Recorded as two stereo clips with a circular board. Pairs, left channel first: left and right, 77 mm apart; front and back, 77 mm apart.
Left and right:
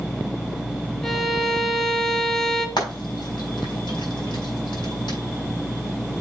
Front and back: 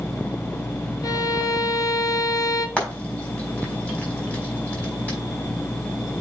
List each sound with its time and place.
1.0 s a violin: 10° left, 1.3 m
2.8 s frying: 70° left, 4.5 m